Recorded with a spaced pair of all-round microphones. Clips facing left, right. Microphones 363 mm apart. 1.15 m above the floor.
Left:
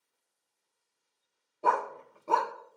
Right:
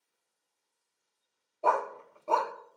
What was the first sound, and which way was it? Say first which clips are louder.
A dog barking: right 1 dB; 25° left (ahead or behind).